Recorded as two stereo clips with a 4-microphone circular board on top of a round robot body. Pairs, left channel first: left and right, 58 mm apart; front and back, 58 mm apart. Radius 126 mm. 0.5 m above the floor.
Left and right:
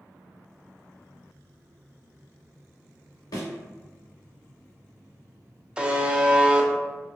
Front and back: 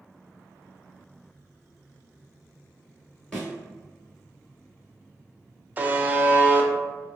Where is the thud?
80° left, 0.6 m.